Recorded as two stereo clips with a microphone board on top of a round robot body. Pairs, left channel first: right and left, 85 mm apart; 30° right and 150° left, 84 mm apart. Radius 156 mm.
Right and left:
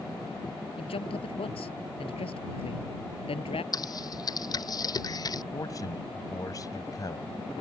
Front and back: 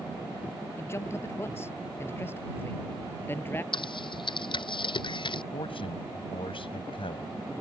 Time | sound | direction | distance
0.8 | a man speaking | 90° right | ?
3.7 | typing on a keyboard | 50° right | ?
5.5 | a man speaking | 45° right | ?